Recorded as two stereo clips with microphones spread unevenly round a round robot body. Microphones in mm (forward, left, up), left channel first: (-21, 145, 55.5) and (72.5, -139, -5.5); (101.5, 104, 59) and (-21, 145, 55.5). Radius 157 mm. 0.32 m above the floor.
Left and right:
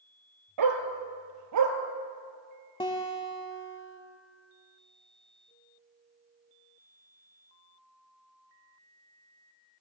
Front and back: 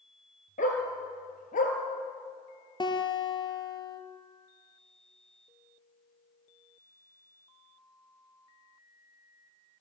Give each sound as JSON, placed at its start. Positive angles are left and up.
{"t": 0.6, "sound": "a dog barking", "azimuth_deg": -60, "distance_m": 3.0}
{"t": 2.8, "sound": "a guitar", "azimuth_deg": 35, "distance_m": 3.0}